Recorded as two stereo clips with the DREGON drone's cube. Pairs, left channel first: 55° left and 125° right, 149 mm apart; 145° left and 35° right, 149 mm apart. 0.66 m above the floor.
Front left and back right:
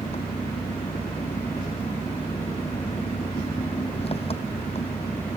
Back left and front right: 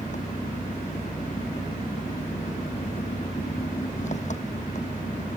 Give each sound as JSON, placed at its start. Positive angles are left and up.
{"t": 0.0, "sound": "an engine running", "azimuth_deg": 105}